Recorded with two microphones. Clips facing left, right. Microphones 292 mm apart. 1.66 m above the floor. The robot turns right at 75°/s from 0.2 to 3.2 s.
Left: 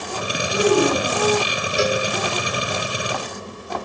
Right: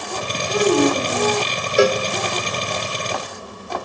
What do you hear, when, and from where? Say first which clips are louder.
0.5 s a child speaking: right 1 dB; 75° right, 6.5 m; by 1.4 s straight ahead, 6.5 m
1.8 s a cowbell: right 6 dB; 65° right (ahead or behind), 0.9 m; by 2.0 s 70° right (ahead or behind), 0.9 m